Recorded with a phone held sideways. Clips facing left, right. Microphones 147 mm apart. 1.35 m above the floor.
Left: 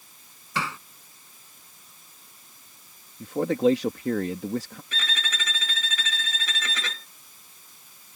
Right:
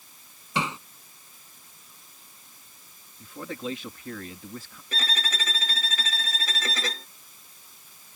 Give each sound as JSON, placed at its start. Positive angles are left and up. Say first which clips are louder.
{"t": 0.6, "sound": "hammering", "louder": "right 2 dB", "side_deg": -20}
{"t": 3.2, "sound": "a man speaking", "louder": "left 13 dB", "side_deg": 80}
{"t": 4.9, "sound": "a violin", "louder": "right 1 dB", "side_deg": -35}